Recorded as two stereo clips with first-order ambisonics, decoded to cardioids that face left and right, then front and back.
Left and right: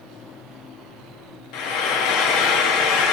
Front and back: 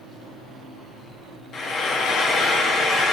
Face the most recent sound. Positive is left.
turn(degrees=65)